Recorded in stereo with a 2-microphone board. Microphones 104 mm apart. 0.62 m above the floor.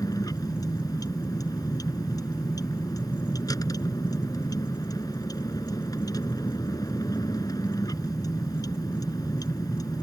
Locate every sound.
0.0 s a vehicle: 35° left (ahead or behind)